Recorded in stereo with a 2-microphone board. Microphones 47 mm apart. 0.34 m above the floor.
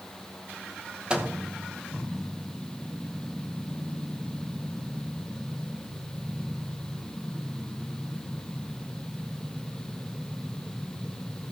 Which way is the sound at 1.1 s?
15° right (ahead or behind).